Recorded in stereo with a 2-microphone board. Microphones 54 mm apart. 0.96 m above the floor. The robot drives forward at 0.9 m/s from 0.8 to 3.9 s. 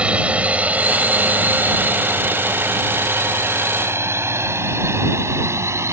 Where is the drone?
25° right (ahead or behind); by 5.9 s 60° right (ahead or behind).